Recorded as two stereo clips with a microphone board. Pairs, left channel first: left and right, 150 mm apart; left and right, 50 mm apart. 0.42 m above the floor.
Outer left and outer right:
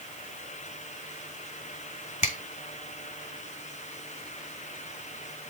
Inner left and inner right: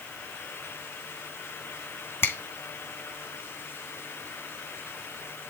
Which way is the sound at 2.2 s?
55° left (ahead or behind).